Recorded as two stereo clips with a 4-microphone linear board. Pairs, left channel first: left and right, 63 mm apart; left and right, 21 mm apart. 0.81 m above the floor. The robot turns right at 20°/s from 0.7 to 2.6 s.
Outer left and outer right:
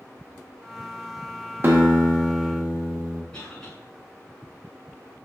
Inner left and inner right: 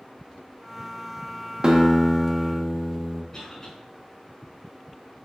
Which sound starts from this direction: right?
A guitar, at 1.6 s.